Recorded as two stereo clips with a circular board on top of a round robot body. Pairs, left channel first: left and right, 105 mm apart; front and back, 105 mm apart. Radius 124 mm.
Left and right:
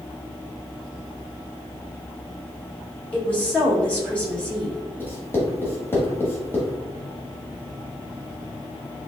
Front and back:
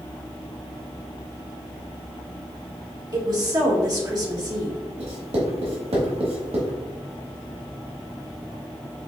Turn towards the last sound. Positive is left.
turn(degrees=160)